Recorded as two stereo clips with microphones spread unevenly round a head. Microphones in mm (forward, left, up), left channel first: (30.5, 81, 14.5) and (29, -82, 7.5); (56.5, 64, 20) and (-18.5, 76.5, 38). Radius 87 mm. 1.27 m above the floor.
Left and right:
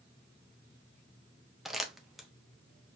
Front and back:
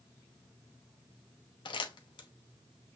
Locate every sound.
1.6 s crumpling: straight ahead, 1.0 m